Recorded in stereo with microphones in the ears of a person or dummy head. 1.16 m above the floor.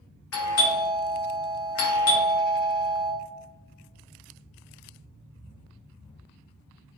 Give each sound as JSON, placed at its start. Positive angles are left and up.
{"t": 0.3, "sound": "a doorbell", "side_deg": 65, "distance_m": 0.8}